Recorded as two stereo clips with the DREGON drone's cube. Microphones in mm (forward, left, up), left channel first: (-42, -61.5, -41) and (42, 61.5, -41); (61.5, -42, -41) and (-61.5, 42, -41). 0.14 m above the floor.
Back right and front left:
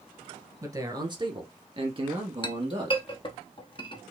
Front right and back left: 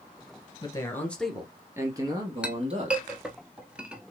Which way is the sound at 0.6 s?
5° left.